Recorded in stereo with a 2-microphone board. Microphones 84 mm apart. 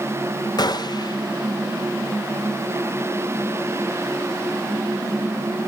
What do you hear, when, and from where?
0.6 s a gunshot: 55° left (ahead or behind), 0.7 m